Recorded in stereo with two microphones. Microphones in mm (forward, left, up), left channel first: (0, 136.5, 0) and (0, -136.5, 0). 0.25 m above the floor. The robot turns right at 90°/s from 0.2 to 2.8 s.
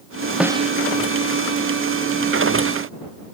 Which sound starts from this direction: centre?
A snare drum, at 0.4 s.